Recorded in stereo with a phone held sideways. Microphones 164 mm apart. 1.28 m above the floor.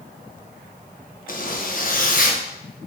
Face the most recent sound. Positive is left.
turn(degrees=55)  # may be behind; listen again after turning